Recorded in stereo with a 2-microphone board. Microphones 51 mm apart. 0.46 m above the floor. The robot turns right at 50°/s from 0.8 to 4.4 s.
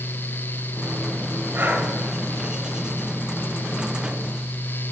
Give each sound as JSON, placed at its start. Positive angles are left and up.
{"t": 1.5, "sound": "breathing", "side_deg": -45, "distance_m": 1.5}